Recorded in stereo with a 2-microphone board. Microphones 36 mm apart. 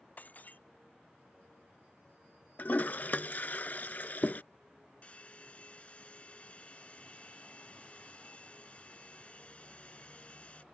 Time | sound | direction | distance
0.2 | breaking glass | 50° left (ahead or behind) | ?
2.6 | a toilet flushing | 50° left (ahead or behind) | ?
5.0 | a hair dryer | 40° left (ahead or behind) | ?